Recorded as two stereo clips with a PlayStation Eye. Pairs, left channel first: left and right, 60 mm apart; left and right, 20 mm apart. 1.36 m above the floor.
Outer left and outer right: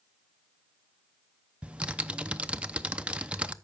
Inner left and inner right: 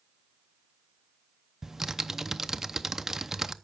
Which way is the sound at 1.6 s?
20° right (ahead or behind).